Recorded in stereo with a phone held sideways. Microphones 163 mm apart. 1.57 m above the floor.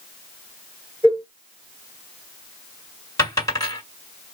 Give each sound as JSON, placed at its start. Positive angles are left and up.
{"t": 1.0, "sound": "a cowbell", "side_deg": -15, "distance_m": 1.4}
{"t": 3.2, "sound": "a dropped coin", "side_deg": 20, "distance_m": 2.0}